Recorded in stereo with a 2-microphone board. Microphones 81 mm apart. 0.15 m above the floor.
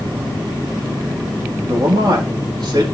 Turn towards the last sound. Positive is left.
turn(degrees=-55)  # may be behind; listen again after turning